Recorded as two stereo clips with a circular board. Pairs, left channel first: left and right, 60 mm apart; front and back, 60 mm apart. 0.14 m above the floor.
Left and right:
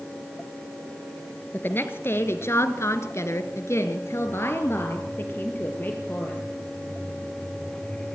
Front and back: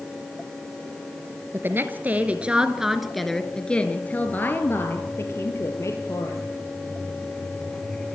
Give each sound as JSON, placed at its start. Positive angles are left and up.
{"t": 1.5, "sound": "a woman speaking", "azimuth_deg": 140, "distance_m": 2.0}